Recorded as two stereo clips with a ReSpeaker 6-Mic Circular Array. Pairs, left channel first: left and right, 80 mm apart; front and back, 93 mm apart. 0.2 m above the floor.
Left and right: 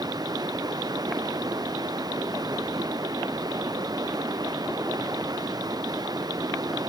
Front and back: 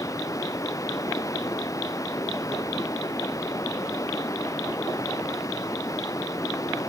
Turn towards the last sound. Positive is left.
turn(degrees=-55)